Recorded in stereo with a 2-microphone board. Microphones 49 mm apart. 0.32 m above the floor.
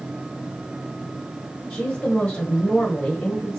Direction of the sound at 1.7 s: 25° left (ahead or behind).